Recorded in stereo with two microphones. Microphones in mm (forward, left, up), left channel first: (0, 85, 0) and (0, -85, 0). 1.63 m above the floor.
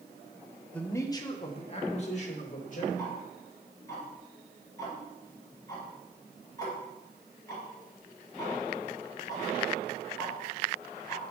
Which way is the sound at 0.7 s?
10° left (ahead or behind).